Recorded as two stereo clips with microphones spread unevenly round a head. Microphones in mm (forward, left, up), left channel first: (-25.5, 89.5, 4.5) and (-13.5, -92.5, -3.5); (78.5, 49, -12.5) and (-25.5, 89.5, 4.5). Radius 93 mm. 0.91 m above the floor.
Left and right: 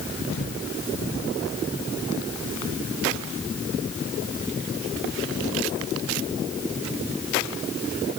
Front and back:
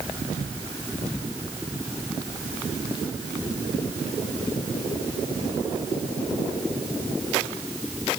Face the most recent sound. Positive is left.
No sound to turn to.